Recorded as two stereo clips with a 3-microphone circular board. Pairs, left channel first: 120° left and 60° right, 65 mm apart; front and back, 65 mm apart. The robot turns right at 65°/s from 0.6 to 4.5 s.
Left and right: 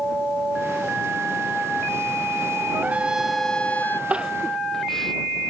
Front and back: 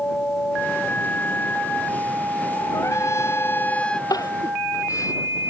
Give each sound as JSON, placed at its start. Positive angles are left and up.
{"t": 2.7, "sound": "a trumpet", "azimuth_deg": -10}
{"t": 4.1, "sound": "crying", "azimuth_deg": 10}